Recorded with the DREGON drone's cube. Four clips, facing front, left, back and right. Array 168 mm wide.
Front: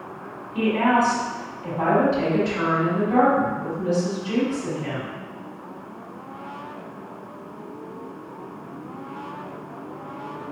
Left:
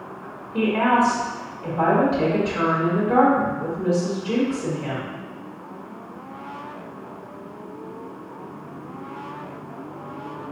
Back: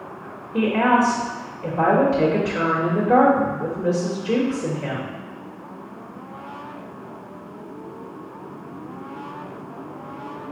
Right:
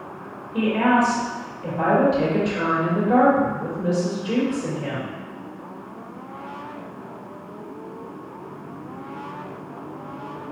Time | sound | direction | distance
0.5 | a woman speaking | straight behind | 1.4 m